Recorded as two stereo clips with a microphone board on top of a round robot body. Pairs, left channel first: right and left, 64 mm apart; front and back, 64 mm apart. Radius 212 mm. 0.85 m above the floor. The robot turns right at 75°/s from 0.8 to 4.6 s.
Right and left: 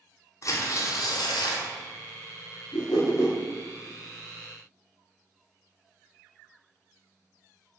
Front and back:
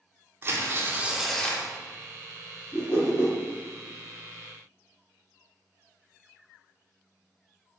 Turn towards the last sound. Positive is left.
turn(degrees=60)